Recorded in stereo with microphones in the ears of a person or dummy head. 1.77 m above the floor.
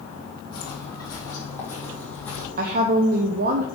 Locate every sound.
0.5 s footsteps: 25° left (ahead or behind), 3.5 m; by 2.5 s 5° left (ahead or behind), 3.5 m
2.6 s a woman speaking: 45° right (ahead or behind), 0.8 m